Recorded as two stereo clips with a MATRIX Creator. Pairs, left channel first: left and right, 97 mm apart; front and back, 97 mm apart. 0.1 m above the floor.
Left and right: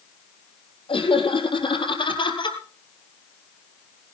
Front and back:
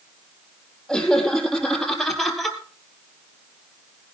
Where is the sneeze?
I don't hear a sneeze.